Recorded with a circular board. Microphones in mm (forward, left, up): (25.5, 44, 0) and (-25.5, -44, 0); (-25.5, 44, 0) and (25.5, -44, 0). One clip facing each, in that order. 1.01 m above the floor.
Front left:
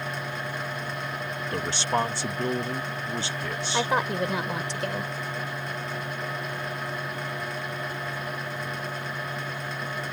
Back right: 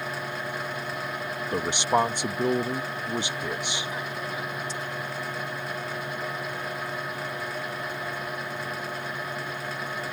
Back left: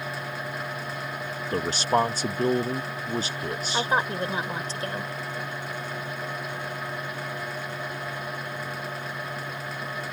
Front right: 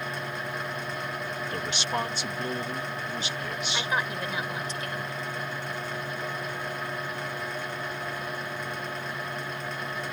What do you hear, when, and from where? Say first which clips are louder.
1.5 s a man speaking: back right 3 dB, back left 9 dB; 170° left
3.7 s a woman speaking: front left 8 dB, back left 5 dB; 65° left